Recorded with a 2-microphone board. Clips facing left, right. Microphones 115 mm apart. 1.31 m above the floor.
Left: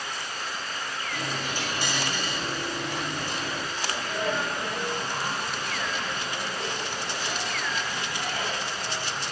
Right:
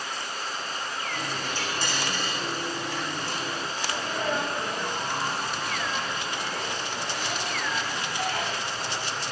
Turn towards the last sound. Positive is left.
turn(degrees=-60)  # may be behind; listen again after turning